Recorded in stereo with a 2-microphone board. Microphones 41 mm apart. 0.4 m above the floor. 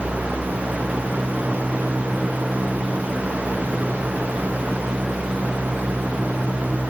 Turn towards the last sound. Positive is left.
No sound to turn to.